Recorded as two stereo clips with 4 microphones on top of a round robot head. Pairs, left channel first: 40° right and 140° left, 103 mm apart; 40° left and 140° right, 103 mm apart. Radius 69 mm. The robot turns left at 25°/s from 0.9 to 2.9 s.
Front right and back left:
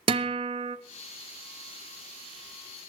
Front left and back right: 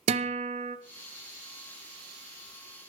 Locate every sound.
0.1 s a guitar: 175° right, 0.7 m